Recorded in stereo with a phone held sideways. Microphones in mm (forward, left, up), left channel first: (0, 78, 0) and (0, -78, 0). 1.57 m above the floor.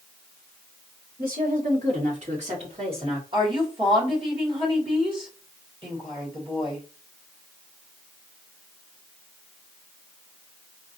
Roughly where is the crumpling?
I don't hear crumpling.